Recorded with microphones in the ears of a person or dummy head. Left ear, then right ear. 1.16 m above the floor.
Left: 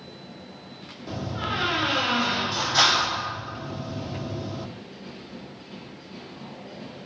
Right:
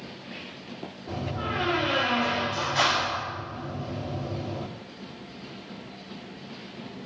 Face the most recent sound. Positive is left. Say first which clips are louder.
# left 2 dB
turn(degrees=80)